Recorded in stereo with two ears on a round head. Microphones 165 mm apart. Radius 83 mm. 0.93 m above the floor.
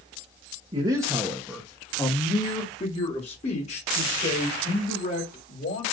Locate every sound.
0.7 s a man speaking: 30° right (ahead or behind), 1.1 m; by 5.8 s 50° left (ahead or behind), 4 m